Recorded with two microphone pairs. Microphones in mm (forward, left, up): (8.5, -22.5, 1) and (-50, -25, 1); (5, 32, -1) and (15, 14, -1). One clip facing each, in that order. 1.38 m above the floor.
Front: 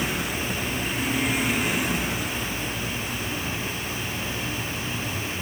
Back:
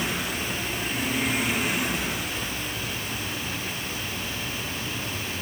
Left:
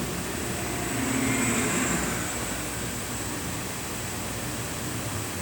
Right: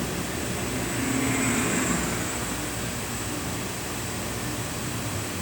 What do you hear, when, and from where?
Only background noise.